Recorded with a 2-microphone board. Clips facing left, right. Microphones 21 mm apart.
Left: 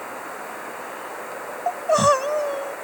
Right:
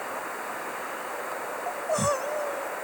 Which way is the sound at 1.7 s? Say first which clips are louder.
Left 9 dB; 35° left (ahead or behind).